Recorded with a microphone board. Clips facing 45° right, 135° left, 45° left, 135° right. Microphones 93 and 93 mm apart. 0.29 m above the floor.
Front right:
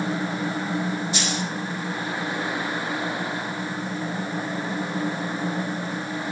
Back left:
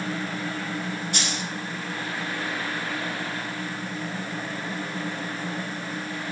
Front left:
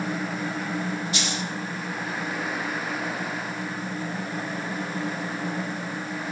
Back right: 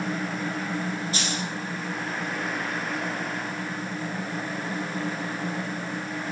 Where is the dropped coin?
170° left, 3.5 m.